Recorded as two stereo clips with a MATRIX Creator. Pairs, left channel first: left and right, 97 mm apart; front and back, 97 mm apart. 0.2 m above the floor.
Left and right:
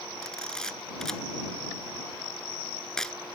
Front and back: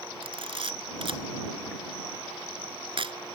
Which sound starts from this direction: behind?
A camera shutter, at 0.2 s.